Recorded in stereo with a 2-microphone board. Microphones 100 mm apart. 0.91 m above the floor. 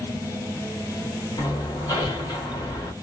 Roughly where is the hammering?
Left.